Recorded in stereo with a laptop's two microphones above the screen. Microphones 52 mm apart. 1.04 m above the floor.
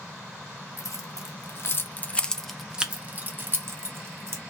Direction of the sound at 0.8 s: 70° left (ahead or behind).